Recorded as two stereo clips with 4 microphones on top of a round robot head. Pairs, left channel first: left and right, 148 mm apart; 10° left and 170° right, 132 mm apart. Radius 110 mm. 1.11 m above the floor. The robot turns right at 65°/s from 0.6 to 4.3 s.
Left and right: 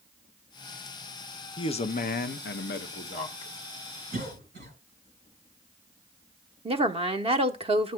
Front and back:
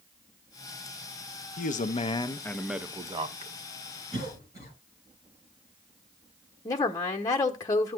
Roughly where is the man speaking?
Ahead left.